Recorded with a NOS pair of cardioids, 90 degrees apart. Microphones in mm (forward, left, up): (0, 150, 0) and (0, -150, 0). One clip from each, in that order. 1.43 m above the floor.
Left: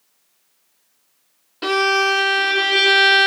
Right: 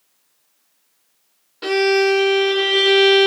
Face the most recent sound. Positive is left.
turn(degrees=20)